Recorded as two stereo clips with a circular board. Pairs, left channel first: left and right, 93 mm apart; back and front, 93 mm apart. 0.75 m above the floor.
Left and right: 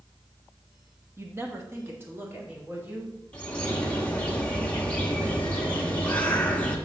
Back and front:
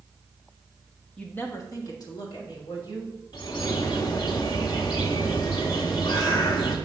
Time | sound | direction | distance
1.2 | a woman speaking | 110° right | 0.9 m
3.3 | a bird | 165° left | 1.2 m